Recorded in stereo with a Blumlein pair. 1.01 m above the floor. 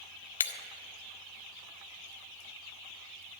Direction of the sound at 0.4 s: 70° left.